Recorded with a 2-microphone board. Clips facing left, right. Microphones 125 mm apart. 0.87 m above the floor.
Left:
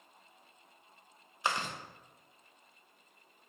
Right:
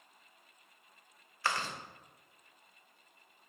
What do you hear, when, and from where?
1.4 s chewing: 20° left (ahead or behind), 0.8 m